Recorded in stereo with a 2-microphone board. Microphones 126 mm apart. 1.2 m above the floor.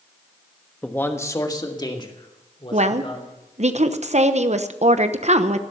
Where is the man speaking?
10° left (ahead or behind), 1.2 m; by 3.3 s 45° left (ahead or behind), 3.5 m.